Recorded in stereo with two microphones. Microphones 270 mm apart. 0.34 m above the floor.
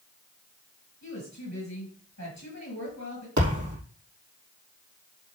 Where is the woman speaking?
75° left (ahead or behind), 6.5 m.